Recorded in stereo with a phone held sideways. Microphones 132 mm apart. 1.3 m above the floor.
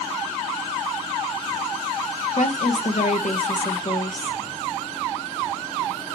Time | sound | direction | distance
2.4 | a woman speaking | 70° left (ahead or behind) | 0.9 m